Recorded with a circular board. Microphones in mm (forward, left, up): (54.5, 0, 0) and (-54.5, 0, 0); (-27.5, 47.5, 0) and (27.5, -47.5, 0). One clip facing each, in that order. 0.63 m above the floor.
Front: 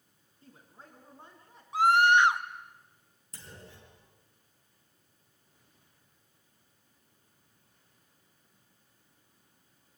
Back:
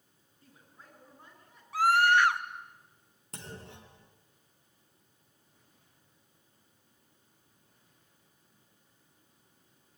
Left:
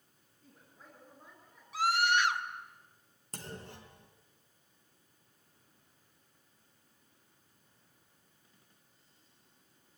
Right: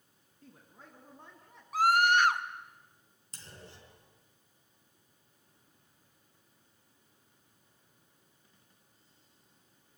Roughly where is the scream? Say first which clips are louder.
Front 2 dB, right 4 dB; ahead right.